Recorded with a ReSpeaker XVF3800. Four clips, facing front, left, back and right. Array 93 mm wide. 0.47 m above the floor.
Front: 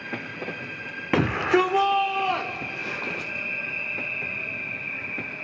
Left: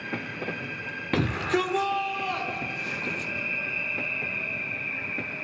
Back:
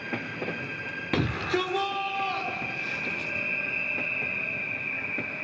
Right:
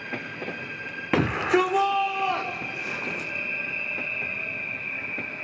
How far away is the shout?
About 1.3 m.